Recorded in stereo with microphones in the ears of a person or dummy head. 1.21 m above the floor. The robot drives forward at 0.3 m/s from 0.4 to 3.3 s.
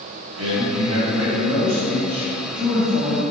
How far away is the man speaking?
About 1.2 m.